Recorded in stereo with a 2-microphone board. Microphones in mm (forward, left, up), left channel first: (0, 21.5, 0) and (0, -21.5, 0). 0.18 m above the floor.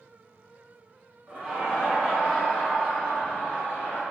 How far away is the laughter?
About 1.5 m.